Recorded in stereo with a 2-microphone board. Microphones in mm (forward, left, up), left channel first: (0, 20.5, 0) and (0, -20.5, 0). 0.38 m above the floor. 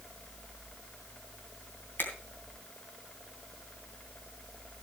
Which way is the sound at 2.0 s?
60° left (ahead or behind).